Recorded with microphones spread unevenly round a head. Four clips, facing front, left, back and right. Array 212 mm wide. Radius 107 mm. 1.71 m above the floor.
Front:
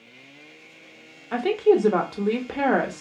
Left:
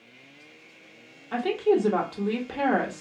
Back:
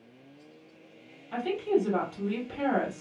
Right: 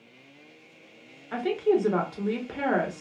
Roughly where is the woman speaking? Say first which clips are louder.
Left 1 dB, front 8 dB; ahead.